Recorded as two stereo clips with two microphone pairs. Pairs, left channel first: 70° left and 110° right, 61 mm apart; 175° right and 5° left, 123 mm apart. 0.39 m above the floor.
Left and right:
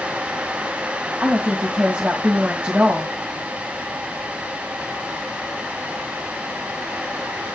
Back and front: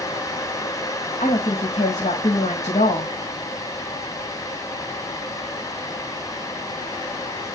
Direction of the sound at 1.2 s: 175° right.